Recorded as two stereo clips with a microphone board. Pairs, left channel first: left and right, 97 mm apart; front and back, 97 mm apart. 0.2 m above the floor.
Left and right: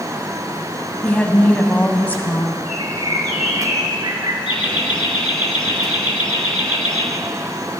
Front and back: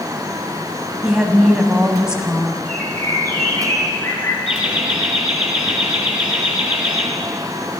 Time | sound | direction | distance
1.0 | a woman speaking | 115° left | 1.0 m
2.6 | a bird | 55° right | 2.5 m
4.5 | laughter | 100° left | 3.5 m